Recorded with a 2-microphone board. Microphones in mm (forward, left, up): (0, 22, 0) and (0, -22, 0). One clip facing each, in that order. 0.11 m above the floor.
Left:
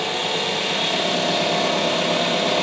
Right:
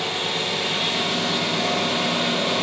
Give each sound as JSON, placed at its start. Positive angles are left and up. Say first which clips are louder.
{"t": 0.0, "sound": "an engine running", "louder": "left 2 dB", "side_deg": 50, "distance_m": 0.8}